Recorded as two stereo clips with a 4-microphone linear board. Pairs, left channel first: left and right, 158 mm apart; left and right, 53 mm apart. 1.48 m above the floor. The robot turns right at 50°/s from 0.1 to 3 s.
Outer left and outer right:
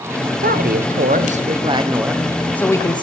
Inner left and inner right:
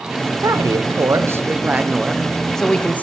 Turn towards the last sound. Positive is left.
turn(degrees=30)